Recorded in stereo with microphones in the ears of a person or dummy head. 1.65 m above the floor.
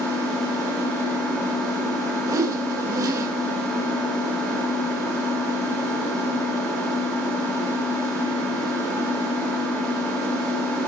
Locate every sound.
0.0 s an engine running: 5° left (ahead or behind), 2 m
2.3 s a whoosh: 15° right (ahead or behind), 1.8 m